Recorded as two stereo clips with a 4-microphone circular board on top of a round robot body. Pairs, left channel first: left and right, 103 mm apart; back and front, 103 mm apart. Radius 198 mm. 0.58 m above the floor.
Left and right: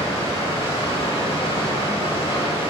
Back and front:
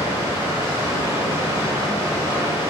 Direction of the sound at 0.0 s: 60° left.